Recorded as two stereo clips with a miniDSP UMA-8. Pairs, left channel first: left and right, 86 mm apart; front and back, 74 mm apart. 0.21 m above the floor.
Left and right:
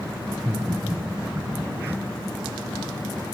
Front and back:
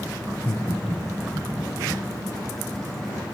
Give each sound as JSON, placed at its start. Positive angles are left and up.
{"t": 0.3, "sound": "laughter", "azimuth_deg": -15, "distance_m": 1.7}